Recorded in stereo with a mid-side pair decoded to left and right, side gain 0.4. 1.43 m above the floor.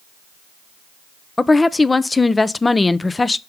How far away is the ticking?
No ticking in this recording.